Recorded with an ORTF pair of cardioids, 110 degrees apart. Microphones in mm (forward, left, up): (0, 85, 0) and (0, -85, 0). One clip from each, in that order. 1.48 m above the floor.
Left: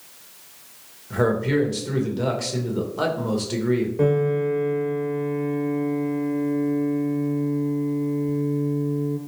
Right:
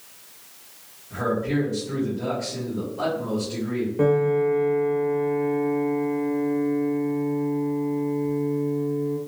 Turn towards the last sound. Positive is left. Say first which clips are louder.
# right 3 dB
turn(degrees=-5)